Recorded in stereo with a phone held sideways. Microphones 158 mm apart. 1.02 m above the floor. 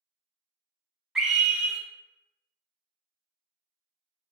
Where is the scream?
5° right (ahead or behind), 1.0 m.